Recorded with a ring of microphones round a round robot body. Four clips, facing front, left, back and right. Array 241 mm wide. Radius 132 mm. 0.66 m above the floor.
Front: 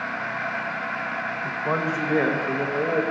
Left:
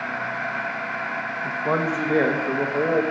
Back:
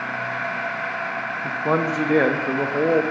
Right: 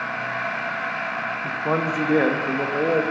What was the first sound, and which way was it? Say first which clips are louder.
A man speaking: left 1 dB, back 5 dB; 175° right.